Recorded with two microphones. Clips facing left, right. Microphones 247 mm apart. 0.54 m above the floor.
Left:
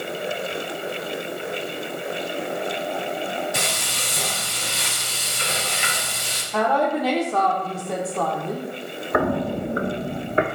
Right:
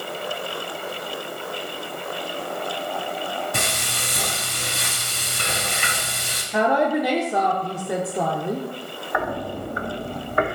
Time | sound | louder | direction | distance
3.5 | frying | even | 65° right (ahead or behind) | 2.5 m
6.5 | a woman speaking | right 2 dB | 15° right (ahead or behind) | 1.0 m
9.1 | footsteps | left 6 dB | 55° left (ahead or behind) | 1.2 m